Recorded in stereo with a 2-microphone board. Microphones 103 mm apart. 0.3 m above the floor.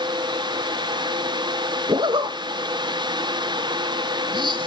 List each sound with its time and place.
1.9 s a zipper: 50° right (ahead or behind), 0.8 m